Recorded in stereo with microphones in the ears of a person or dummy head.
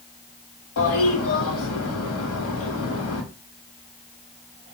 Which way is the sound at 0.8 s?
85° left.